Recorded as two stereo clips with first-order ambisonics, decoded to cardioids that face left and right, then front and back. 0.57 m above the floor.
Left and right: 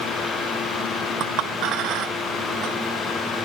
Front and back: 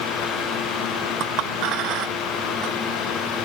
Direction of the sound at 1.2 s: 135° right.